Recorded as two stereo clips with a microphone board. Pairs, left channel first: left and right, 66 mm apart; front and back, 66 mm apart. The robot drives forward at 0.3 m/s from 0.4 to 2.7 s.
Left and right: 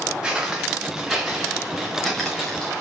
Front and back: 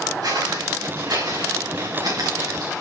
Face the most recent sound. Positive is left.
turn(degrees=165)